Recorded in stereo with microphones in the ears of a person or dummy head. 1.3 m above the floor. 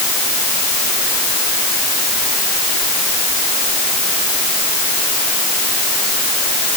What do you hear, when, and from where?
Only background noise.